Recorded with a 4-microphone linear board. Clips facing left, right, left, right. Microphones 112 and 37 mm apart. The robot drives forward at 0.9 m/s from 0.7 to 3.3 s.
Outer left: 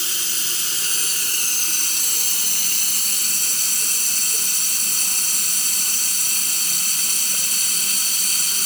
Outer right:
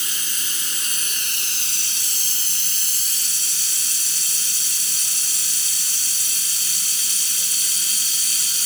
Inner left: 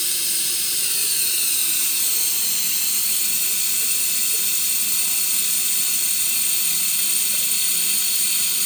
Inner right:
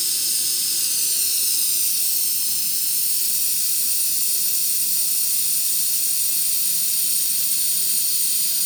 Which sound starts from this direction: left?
Running water, at 0.0 s.